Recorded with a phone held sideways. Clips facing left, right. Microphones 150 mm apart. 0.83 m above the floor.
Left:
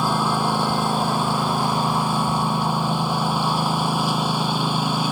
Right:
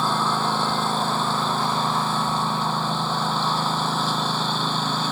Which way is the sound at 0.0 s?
10° left (ahead or behind).